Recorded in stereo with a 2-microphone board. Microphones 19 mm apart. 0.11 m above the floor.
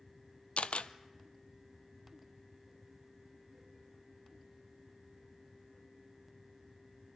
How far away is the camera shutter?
About 0.7 m.